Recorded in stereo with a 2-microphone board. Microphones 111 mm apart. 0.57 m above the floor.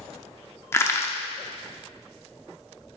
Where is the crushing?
25° left (ahead or behind), 0.7 m.